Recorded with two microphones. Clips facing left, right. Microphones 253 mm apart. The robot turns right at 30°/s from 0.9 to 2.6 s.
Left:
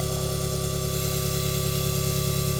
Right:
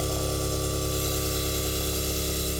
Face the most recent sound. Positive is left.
turn(degrees=75)